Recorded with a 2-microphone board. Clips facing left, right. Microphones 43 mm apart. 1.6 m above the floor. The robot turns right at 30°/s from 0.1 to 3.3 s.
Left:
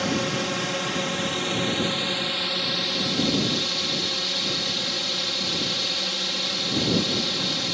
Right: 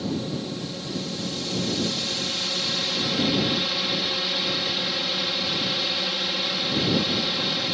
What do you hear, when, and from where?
0.0 s a drone: 90° left; by 7.8 s 175° right